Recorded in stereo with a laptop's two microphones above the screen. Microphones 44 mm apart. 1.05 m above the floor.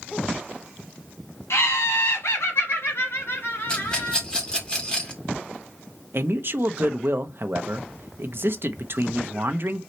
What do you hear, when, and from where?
1.5 s laughter: 70° left (ahead or behind), 2 m; by 4.2 s 60° left (ahead or behind), 3 m
3.7 s a rattle: 20° left (ahead or behind), 2 m
6.1 s a man speaking: 55° right (ahead or behind), 0.9 m